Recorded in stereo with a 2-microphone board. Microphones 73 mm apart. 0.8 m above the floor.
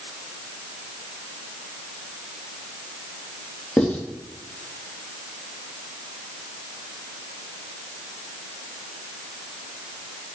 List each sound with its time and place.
3.8 s writing: 15° left (ahead or behind), 3.5 m